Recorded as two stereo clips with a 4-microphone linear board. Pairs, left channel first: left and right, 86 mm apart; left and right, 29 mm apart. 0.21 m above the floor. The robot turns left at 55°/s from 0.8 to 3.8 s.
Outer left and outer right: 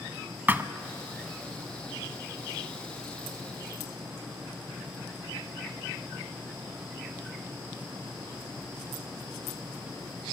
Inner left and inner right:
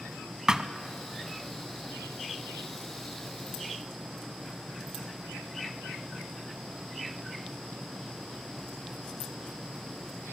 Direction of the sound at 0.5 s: 25° right (ahead or behind).